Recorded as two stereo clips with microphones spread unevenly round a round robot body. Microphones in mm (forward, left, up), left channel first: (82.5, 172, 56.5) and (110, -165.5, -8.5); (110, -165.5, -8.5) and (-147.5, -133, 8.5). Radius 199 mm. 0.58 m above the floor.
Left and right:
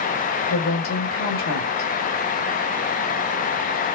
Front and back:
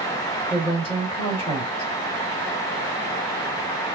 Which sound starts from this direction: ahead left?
A woman speaking, at 0.5 s.